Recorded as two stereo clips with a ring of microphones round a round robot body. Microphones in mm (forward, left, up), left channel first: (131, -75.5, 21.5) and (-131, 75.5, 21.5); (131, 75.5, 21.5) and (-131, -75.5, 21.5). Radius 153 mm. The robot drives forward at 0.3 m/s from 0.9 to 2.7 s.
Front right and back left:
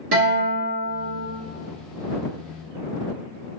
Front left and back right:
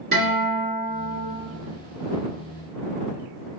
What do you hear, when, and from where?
0.1 s a guitar: 150° left, 1.6 m